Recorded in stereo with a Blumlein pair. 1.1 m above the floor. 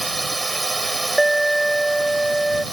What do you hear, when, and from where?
0.0 s a drone: 10° right
1.2 s an alarm: 5° right